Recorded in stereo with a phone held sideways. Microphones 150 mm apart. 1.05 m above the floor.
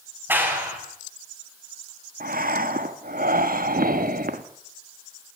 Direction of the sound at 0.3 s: 15° right (ahead or behind).